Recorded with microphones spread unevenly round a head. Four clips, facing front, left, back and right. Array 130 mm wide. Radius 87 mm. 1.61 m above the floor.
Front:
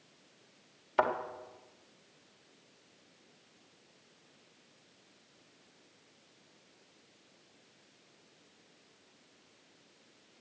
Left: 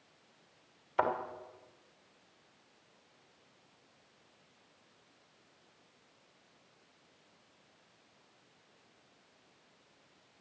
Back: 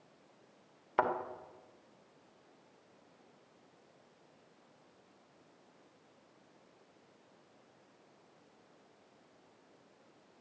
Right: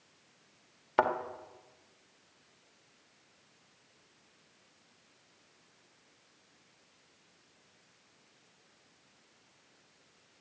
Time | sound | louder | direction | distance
1.0 | a thud | right 3 dB, front 2 dB | 90° right | 1.9 m